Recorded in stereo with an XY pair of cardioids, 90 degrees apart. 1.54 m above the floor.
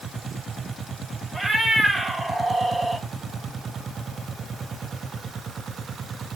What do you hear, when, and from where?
1.3 s a cat meowing: 10° right, 2.5 m